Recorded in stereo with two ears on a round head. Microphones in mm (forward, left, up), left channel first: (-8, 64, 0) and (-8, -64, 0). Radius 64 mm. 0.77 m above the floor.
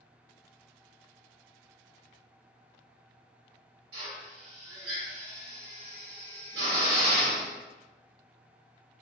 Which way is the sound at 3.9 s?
80° right.